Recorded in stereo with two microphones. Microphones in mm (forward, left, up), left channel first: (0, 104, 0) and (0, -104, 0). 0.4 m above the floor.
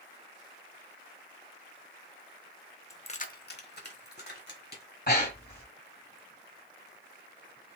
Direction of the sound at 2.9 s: 15° left (ahead or behind).